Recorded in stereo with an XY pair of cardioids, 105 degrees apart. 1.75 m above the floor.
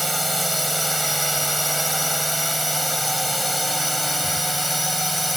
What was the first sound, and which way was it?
A drone, straight ahead.